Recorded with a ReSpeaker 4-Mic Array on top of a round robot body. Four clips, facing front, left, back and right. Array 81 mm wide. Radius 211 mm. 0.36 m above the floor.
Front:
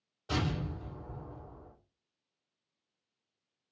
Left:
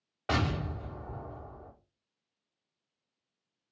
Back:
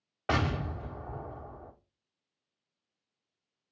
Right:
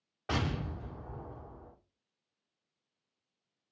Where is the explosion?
165° left, 0.7 m.